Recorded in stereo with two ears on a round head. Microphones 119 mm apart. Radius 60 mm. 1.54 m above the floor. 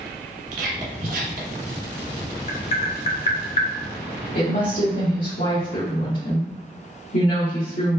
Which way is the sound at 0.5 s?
60° right (ahead or behind).